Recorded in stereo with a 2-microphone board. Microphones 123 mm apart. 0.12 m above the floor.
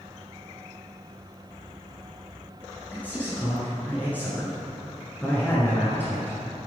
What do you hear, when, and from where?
2.9 s a man speaking: 15° left (ahead or behind), 1.6 m